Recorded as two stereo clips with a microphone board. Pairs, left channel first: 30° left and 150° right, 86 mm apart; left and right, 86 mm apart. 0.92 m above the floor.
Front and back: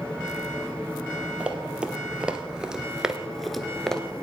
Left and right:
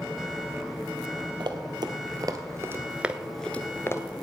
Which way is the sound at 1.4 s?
70° right.